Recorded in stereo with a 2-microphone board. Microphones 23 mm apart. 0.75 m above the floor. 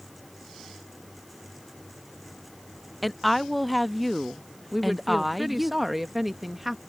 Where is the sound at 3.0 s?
5° right (ahead or behind).